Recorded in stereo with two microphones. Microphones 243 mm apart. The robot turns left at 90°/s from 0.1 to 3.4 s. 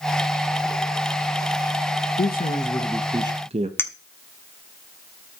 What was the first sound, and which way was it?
A man speaking, 75° left.